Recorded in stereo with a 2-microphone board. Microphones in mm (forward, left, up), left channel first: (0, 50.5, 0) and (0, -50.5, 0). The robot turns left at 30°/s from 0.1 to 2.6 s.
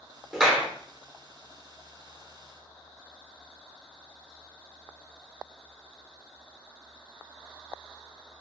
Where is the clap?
5° right (ahead or behind), 0.9 m; by 0.7 s centre (ahead or behind), 0.9 m.